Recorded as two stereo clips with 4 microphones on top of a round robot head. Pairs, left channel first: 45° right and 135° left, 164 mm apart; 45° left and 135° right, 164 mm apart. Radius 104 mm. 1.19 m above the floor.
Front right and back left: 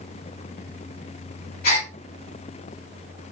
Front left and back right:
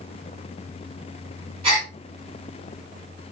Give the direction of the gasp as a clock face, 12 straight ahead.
3 o'clock.